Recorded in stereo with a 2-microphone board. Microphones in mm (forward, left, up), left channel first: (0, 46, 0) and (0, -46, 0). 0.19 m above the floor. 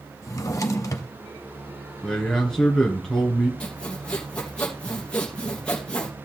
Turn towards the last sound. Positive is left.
turn(degrees=10)  # may be behind; listen again after turning